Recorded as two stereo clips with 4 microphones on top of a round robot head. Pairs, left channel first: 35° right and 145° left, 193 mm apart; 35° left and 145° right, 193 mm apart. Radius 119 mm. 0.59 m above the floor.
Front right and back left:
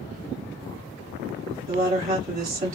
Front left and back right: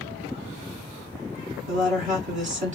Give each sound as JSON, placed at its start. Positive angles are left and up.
{"t": 1.7, "sound": "a woman speaking", "azimuth_deg": 180, "distance_m": 1.8}